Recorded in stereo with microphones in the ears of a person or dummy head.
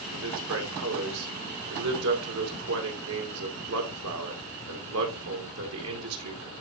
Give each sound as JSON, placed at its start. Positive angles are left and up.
{"t": 0.1, "sound": "a man speaking", "side_deg": -75, "distance_m": 2.0}